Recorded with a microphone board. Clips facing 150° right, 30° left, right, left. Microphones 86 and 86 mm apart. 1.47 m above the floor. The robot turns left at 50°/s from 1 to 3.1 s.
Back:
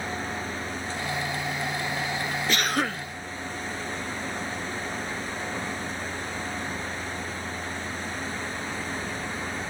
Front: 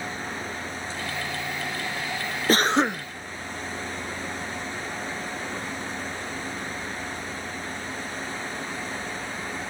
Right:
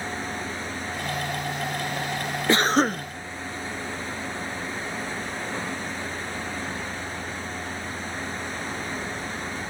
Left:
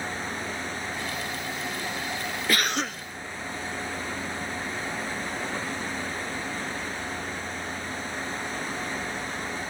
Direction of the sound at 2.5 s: 25° right.